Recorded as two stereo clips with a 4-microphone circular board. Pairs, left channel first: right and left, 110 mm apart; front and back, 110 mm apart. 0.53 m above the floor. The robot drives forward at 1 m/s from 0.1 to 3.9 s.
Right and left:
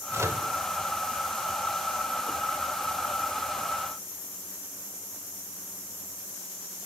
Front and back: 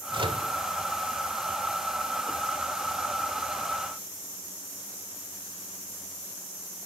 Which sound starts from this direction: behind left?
A microwave, at 0.1 s.